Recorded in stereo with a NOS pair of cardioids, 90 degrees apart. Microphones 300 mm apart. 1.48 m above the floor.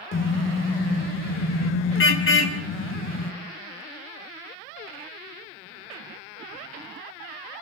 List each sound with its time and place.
0.1 s a car horn: 45° left, 3.5 m